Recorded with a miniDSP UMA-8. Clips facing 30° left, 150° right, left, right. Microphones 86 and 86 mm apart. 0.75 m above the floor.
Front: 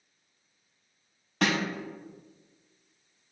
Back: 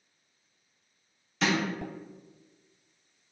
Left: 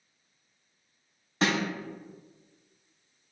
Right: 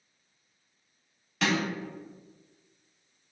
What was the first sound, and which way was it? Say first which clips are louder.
A snare drum: even, left 1 dB; 35° left.